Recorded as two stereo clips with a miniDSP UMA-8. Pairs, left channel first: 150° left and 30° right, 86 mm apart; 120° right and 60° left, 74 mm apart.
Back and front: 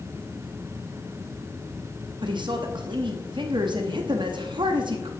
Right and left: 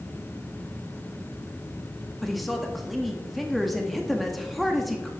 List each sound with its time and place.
2.2 s a woman speaking: 30° right, 0.8 m